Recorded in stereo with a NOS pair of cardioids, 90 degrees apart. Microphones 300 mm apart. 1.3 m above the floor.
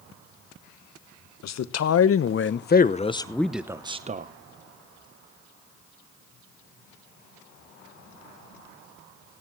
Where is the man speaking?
65° left, 1.5 m; by 4.3 s 30° right, 1.0 m.